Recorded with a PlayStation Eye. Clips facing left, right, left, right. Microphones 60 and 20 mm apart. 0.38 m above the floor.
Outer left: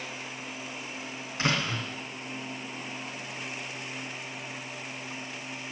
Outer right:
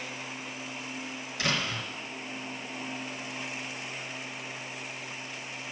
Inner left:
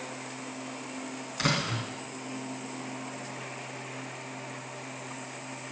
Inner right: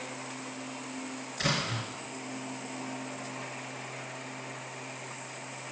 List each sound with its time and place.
1.4 s a door slam: 40° left (ahead or behind), 3 m